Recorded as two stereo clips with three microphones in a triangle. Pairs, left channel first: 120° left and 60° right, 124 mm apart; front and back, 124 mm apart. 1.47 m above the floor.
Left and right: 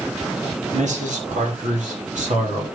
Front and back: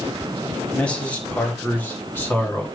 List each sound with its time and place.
0.7 s a man speaking: 80° right, 2.5 m; by 2.6 s 75° right, 4 m